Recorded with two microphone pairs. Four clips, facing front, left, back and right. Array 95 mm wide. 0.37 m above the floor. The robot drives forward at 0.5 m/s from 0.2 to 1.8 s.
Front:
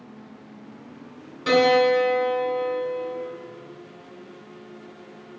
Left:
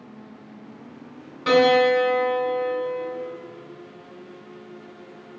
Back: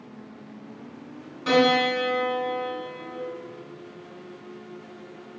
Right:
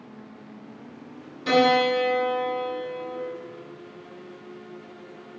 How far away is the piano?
About 1.1 m.